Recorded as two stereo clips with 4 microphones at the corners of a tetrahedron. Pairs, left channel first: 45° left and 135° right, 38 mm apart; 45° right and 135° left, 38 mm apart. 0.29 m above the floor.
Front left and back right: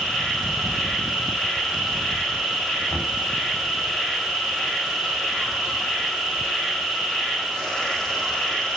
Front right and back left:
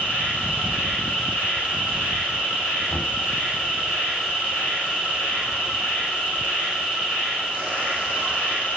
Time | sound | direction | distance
0.0 | an insect | 15° right | 1.6 m
2.9 | knocking | 30° right | 1.6 m